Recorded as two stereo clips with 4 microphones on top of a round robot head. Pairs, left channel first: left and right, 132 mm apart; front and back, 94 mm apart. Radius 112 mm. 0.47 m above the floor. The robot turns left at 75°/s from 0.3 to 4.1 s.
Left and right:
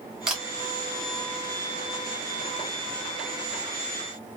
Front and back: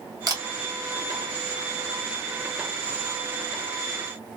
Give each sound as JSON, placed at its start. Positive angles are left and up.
{"t": 0.3, "sound": "a camera shutter", "azimuth_deg": -170, "distance_m": 1.1}